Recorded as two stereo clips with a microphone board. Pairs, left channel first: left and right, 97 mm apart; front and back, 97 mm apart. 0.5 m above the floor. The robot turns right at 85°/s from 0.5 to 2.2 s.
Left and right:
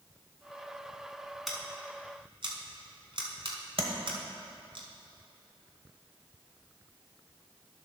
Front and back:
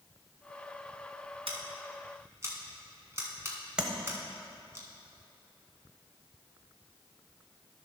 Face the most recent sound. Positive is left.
turn(degrees=-100)